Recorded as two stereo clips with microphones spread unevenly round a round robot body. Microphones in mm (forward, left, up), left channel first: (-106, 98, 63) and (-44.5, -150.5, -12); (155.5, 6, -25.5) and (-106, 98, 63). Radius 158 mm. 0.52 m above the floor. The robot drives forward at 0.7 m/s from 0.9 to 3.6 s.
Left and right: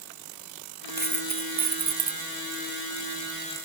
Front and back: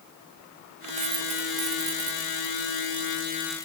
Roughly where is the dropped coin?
Behind right.